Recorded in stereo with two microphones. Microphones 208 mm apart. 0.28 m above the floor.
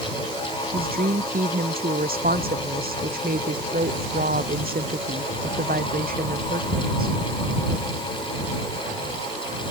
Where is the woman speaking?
45° right (ahead or behind).